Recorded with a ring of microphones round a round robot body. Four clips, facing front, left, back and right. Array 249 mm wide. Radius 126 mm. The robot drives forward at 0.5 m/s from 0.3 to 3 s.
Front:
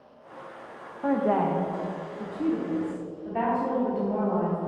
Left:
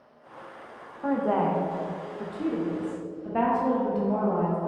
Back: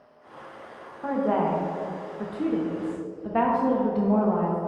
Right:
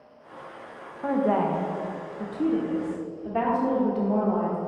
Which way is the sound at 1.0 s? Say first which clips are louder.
Right 1 dB, even; 25° right.